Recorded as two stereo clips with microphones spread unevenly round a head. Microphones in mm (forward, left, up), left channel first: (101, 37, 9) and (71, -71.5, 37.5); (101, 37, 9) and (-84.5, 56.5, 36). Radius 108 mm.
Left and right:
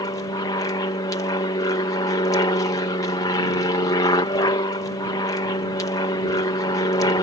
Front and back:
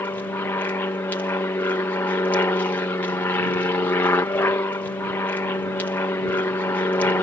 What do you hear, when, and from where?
0.0 s an aircraft: 65° left